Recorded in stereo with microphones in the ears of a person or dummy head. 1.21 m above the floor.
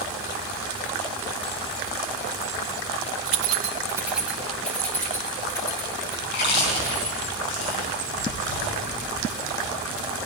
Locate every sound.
3.3 s keys jangling: 75° right (ahead or behind), 0.6 m; by 7.2 s 20° left (ahead or behind), 4.5 m
6.2 s chewing: 60° left (ahead or behind), 5 m